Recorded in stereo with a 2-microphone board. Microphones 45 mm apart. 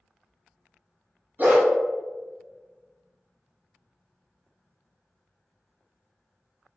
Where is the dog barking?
40° right (ahead or behind), 0.6 m.